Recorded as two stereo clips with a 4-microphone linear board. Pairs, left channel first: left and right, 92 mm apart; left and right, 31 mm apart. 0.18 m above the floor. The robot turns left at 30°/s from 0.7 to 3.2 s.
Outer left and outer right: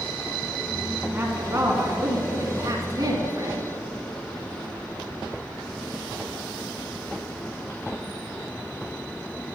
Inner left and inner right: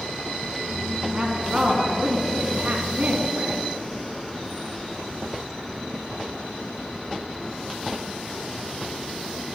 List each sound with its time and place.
1.1 s a woman speaking: 40° right, 1.8 m; by 3.7 s 105° right, 1.8 m